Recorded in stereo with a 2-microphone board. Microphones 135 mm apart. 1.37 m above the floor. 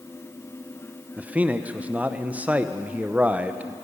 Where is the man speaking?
10° right (ahead or behind), 0.6 m.